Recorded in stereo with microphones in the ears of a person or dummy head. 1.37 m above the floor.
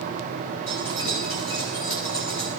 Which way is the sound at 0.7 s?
65° left (ahead or behind).